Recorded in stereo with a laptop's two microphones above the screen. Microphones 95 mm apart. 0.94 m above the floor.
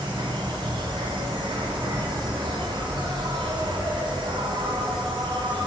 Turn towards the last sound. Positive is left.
turn(degrees=-60)  # may be behind; listen again after turning